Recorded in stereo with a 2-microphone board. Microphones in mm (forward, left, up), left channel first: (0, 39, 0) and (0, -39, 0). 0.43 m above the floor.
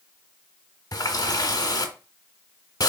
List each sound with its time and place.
0.9 s a running tap: 45° left (ahead or behind), 0.8 m